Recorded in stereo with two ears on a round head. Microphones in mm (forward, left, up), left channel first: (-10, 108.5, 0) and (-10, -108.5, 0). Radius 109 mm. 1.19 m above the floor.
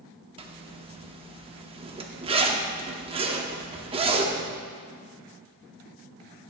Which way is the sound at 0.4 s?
25° right (ahead or behind).